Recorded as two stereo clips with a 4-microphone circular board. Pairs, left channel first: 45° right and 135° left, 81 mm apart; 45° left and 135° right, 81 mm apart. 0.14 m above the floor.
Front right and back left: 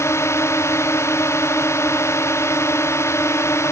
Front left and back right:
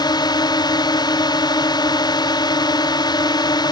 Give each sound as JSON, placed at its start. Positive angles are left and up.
{"t": 0.0, "sound": "a drone", "azimuth_deg": 15}